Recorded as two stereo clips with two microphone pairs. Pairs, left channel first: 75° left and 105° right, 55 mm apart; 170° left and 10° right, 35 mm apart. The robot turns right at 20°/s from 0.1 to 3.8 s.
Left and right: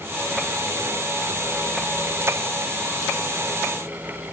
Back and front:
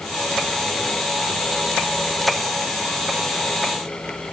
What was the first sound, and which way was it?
Only background noise.